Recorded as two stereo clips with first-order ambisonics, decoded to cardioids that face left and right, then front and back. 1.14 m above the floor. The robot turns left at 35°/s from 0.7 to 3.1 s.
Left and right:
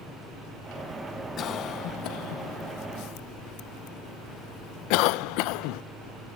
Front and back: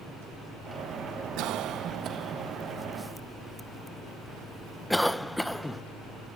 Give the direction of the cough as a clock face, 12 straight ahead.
7 o'clock.